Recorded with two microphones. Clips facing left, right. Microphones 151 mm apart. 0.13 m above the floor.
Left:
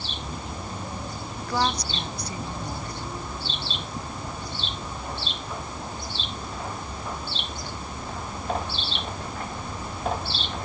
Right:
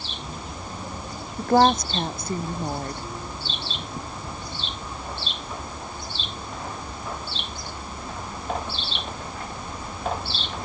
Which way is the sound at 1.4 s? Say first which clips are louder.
Right 9 dB; 50° right (ahead or behind).